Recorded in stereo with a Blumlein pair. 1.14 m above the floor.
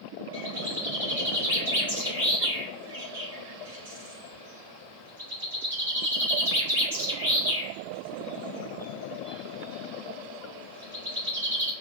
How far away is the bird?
About 1.4 m.